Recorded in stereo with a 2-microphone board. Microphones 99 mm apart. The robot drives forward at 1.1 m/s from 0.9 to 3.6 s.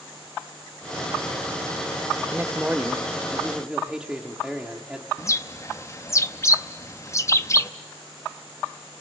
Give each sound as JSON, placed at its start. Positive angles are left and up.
{"t": 2.3, "sound": "a man speaking", "side_deg": -20, "distance_m": 0.7}
{"t": 5.2, "sound": "a bird", "side_deg": 30, "distance_m": 0.6}